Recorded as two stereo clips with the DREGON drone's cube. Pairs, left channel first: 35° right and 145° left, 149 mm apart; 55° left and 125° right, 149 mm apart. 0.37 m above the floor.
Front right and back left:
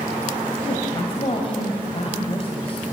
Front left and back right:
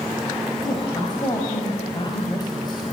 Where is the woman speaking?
5° left, 2.5 m.